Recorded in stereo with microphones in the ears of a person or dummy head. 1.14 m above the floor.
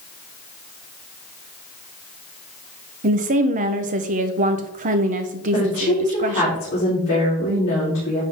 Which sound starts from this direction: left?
A woman speaking, at 5.5 s.